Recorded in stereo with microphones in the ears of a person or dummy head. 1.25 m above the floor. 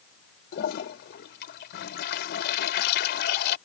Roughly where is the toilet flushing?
Left.